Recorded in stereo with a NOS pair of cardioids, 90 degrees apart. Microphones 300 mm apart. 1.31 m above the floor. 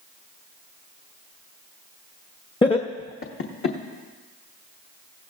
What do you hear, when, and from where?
2.6 s laughter: 15° left, 0.9 m; by 3.8 s 50° left, 1.3 m